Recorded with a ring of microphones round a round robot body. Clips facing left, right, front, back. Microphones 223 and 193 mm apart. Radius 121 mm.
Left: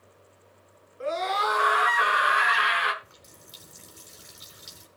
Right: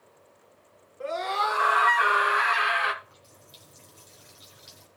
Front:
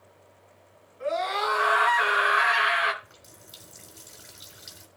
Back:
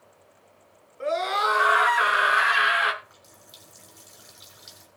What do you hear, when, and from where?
1.0 s a scream: 150° left, 5.5 m; by 2.9 s 135° left, 5.5 m
3.0 s a running tap: 60° left, 3.5 m